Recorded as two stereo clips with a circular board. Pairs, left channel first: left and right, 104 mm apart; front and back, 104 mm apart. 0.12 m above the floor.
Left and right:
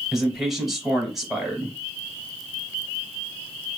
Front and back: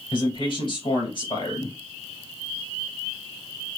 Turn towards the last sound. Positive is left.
turn(degrees=-5)